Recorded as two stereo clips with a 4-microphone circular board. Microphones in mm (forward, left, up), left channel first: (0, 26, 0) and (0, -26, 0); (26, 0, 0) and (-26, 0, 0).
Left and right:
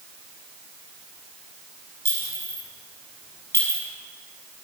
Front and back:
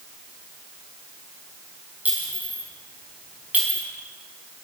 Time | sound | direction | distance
2.0 | a clink | 120° left | 5 m